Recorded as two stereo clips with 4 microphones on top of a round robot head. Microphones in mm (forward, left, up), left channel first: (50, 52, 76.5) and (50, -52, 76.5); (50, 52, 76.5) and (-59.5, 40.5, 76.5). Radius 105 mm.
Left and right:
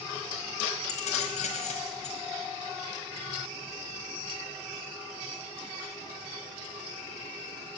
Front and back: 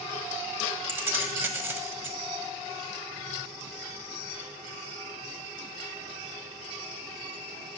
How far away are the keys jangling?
About 1.1 m.